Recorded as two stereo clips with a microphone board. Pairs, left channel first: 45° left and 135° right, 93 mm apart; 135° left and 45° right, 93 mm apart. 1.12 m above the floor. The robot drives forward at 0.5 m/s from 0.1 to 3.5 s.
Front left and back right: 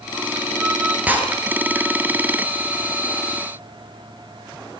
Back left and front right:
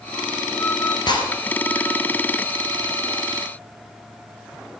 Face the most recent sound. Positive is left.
turn(degrees=165)